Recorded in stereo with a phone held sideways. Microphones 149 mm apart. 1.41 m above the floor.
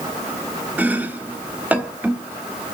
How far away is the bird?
No bird in this recording.